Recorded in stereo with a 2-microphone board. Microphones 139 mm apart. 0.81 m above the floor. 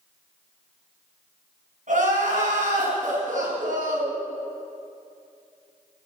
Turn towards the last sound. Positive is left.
turn(degrees=-65)  # may be behind; listen again after turning